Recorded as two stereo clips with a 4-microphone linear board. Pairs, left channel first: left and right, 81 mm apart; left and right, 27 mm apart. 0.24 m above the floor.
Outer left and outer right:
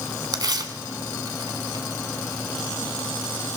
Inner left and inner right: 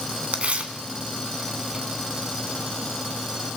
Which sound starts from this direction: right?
Tearing paper, at 0.3 s.